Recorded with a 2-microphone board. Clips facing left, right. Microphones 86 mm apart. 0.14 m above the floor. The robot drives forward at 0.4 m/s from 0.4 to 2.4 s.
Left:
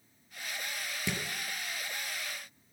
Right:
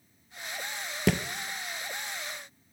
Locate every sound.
1.1 s a thud: 70° right (ahead or behind), 0.7 m